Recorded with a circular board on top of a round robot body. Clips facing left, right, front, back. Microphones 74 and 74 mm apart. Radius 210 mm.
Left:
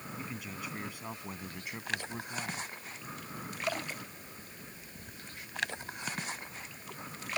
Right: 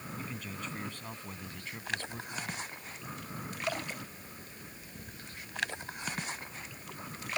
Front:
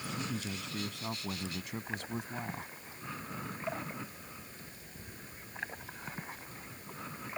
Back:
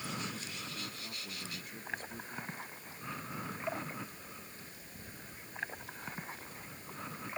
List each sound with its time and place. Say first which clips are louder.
0.2 s a man speaking: even, front 4 dB; 5° left; by 2.7 s 20° left